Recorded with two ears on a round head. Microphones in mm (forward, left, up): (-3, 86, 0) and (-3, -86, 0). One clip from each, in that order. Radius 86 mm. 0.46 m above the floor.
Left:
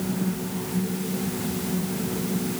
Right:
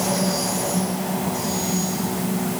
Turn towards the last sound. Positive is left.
No sound to turn to.